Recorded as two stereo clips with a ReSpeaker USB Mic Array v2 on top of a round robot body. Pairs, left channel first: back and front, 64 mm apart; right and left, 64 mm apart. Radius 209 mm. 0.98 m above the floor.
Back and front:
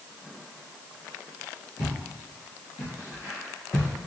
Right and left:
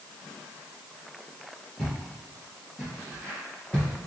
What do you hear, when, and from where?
1.8 s footsteps: 175° right, 1.9 m; by 3.9 s 105° right, 0.9 m